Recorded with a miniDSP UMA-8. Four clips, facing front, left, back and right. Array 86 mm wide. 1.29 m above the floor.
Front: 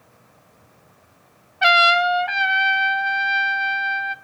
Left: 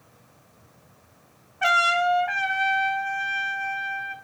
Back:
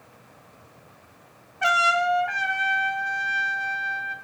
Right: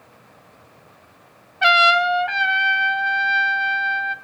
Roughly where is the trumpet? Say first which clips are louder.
Right 5 dB, front 5 dB; ahead right.